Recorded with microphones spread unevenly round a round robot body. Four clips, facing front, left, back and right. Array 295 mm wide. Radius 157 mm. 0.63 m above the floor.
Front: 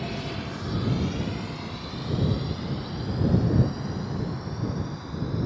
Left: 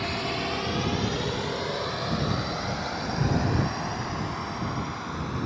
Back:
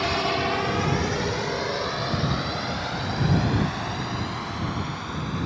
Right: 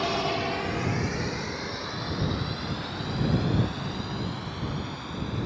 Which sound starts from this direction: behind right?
A drone, at 0.0 s.